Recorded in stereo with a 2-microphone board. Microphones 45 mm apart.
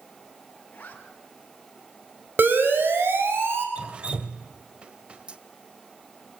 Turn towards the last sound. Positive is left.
turn(degrees=-25)  # may be behind; listen again after turning